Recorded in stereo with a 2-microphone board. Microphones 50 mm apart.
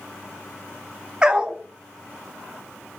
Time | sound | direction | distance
1.2 | a dog barking | 20° right (ahead or behind) | 0.6 m